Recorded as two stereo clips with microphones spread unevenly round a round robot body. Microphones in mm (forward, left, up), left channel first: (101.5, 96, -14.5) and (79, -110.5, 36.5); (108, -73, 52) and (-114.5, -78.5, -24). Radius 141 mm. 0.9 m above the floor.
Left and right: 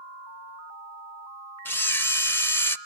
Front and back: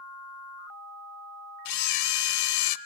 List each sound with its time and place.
1.6 s a camera shutter: 10° left, 0.5 m